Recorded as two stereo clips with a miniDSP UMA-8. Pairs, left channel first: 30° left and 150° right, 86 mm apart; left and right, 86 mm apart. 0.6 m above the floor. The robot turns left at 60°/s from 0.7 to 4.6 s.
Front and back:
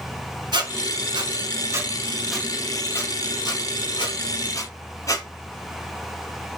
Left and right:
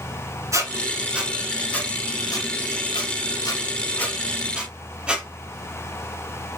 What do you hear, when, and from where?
0.5 s a squeak: 140° right, 0.9 m; by 5.3 s 15° right, 0.9 m